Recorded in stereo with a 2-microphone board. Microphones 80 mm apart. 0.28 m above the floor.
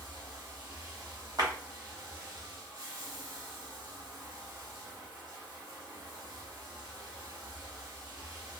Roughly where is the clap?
Right.